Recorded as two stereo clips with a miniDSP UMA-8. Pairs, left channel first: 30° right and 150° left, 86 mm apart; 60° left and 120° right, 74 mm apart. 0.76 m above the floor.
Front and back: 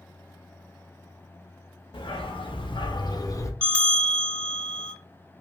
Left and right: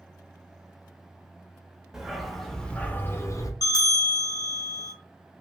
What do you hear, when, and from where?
1.9 s a dog barking: 40° right, 0.9 m; by 3.5 s 25° left, 0.6 m
3.6 s a bell: 45° left, 0.9 m